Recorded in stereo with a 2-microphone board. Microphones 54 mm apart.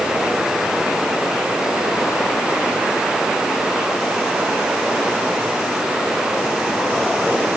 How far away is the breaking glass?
I don't hear breaking glass.